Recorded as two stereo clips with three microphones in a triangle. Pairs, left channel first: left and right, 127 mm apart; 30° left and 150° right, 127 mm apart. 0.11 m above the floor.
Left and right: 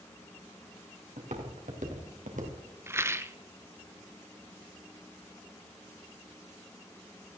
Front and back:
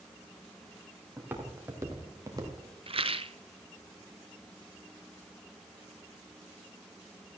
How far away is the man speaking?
No man speaking in this recording.